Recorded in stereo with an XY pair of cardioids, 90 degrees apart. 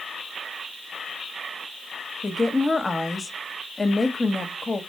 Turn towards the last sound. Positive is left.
turn(degrees=25)